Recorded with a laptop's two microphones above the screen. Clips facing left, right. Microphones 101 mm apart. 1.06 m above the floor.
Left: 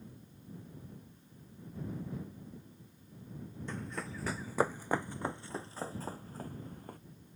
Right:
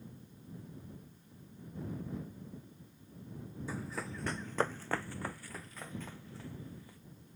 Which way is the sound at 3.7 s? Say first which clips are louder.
Even; 5° right (ahead or behind).